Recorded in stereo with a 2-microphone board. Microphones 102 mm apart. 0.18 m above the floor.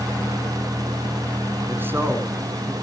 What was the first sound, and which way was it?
A man speaking, 20° right (ahead or behind).